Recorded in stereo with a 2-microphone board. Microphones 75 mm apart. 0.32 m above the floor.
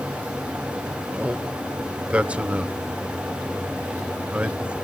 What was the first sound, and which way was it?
A man speaking, 15° right (ahead or behind).